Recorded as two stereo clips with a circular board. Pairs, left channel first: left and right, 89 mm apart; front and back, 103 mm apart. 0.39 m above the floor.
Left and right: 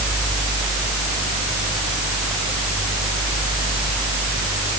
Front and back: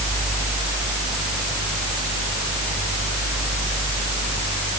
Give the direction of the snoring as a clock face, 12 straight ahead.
I don't hear snoring.